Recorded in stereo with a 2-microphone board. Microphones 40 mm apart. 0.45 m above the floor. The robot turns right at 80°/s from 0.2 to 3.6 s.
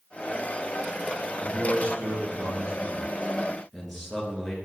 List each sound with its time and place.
1.4 s a man speaking: 170° right, 7 m; by 4.6 s 5° left, 7 m